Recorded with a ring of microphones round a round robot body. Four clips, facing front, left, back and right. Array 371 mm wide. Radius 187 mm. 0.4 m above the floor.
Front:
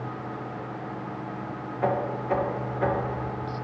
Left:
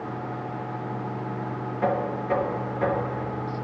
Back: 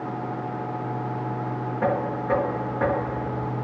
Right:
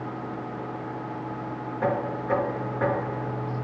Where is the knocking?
165° right, 5.5 m.